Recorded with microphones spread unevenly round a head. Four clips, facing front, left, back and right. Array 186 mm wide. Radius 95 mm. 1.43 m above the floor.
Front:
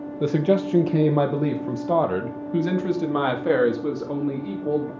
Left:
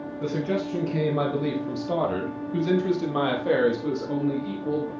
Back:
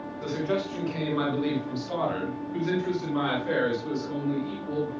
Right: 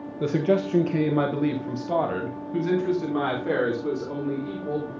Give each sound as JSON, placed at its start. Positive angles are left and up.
{"t": 0.2, "sound": "a man speaking", "azimuth_deg": -25, "distance_m": 1.2}